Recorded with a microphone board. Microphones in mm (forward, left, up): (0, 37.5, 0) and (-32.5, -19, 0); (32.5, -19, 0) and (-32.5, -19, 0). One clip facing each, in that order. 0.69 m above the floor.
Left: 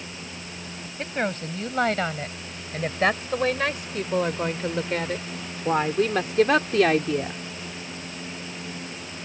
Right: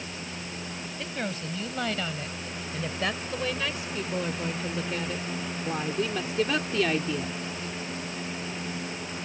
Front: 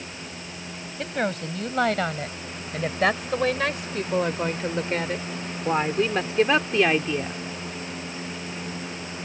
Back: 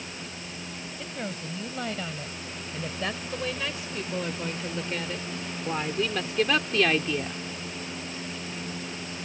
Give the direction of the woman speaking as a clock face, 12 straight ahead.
12 o'clock.